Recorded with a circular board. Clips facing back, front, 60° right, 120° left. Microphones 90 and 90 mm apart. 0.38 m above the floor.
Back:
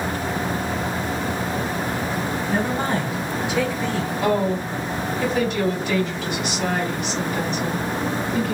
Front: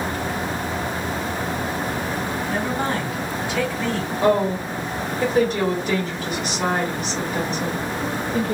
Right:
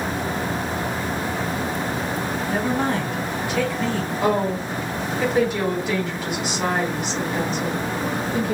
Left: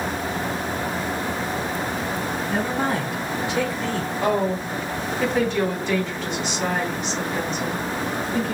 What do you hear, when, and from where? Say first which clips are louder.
2.5 s a woman speaking: back 2 dB, right 2 dB; 140° right, 1.4 m; by 4.1 s 110° left, 1.5 m
4.2 s a woman speaking: front 3 dB, right 1 dB; 15° left, 1.8 m